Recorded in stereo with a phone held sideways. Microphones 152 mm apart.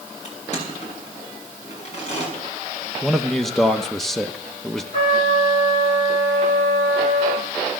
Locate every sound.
0.2 s crushing: 50° left (ahead or behind), 6 m
3.0 s a man speaking: centre (ahead or behind), 0.8 m
4.9 s a trumpet: 40° left (ahead or behind), 8.5 m